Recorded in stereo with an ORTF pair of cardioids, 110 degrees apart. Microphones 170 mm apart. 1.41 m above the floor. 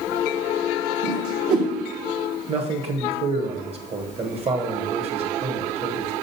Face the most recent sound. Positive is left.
turn(degrees=-35)